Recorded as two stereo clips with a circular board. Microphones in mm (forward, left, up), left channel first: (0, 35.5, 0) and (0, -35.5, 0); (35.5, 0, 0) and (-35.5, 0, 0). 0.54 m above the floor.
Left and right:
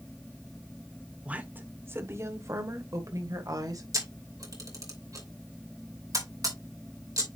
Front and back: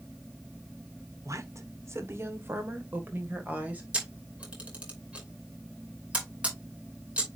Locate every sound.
1.2 s a woman speaking: 155° right, 1.4 m; by 3.8 s 115° right, 2.5 m
3.9 s a camera shutter: 110° right, 2.5 m